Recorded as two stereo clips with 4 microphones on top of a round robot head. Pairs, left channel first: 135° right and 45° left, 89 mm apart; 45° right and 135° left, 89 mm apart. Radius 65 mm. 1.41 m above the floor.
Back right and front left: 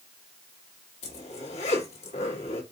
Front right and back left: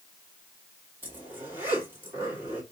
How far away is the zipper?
About 1.8 m.